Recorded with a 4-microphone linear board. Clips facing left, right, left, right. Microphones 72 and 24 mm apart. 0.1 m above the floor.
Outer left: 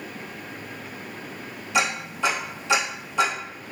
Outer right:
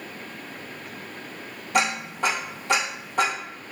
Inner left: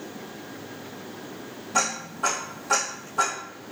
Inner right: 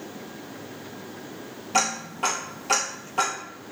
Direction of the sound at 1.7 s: 55° right (ahead or behind).